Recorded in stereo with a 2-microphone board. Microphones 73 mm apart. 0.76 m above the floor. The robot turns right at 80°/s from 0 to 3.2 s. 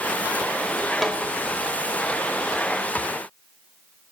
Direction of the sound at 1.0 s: Centre (ahead or behind).